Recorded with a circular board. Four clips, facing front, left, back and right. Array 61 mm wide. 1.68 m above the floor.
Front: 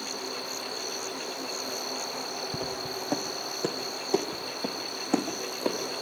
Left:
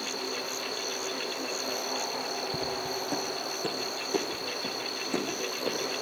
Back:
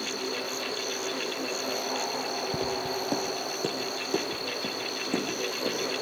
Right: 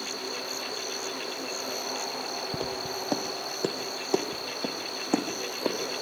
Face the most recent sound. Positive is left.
turn(degrees=-60)